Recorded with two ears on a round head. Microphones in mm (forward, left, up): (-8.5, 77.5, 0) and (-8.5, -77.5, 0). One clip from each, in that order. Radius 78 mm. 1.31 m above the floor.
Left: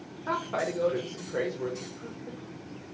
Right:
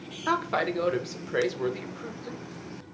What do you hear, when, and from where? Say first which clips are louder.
0.3 s a woman speaking: right 4 dB; 75° right (ahead or behind), 1.0 m